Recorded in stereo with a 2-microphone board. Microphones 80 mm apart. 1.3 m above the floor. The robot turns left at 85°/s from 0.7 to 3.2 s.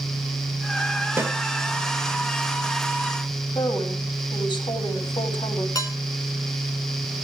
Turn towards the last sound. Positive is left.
turn(degrees=45)  # may be behind; listen again after turning